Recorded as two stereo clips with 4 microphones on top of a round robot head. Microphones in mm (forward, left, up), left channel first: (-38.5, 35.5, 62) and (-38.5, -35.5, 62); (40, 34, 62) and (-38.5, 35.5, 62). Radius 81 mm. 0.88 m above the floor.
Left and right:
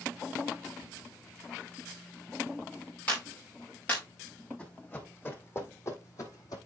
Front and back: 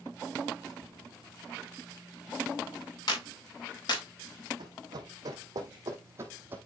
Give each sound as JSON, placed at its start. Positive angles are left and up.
{"t": 3.1, "sound": "a clap", "azimuth_deg": 15, "distance_m": 3.5}
{"t": 4.6, "sound": "running footsteps", "azimuth_deg": 155, "distance_m": 2.5}